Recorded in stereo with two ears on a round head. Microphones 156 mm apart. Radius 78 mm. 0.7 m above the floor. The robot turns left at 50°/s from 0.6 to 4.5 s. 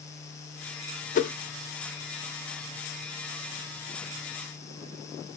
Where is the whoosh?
45° left (ahead or behind), 0.5 m; by 1.3 s 55° left (ahead or behind), 0.5 m.